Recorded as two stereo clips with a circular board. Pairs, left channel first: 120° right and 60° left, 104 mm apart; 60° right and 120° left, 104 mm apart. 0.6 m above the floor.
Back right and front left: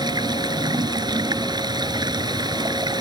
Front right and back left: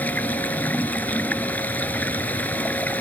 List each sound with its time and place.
0.0 s running water: 15° left